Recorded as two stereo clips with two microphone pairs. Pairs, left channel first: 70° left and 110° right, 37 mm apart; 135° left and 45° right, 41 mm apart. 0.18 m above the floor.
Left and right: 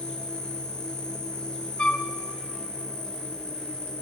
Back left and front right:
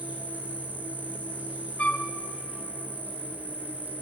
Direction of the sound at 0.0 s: 5° left.